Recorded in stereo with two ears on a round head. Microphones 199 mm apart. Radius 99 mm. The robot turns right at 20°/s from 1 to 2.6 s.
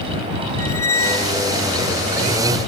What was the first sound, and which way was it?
A squeak, 15° left (ahead or behind).